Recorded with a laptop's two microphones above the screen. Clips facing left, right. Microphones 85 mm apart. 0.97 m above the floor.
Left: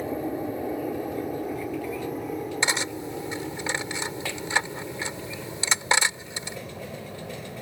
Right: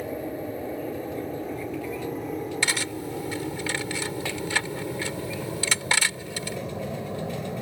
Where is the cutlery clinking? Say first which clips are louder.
Left 1 dB; 25° left (ahead or behind).